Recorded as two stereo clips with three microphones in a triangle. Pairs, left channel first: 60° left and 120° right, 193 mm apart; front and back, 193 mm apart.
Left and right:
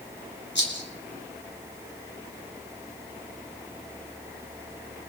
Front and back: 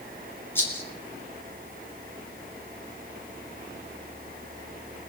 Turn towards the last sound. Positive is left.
turn(degrees=80)